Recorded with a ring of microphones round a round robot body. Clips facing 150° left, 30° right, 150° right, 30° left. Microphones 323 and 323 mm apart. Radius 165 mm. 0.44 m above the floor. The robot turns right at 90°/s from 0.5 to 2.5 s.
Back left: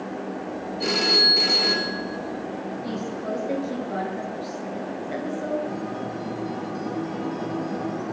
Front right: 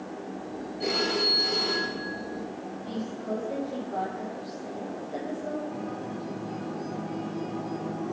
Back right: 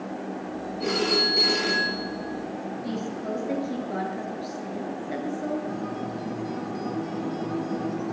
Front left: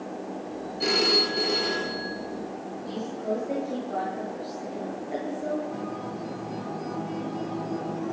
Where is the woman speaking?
155° left, 9 m.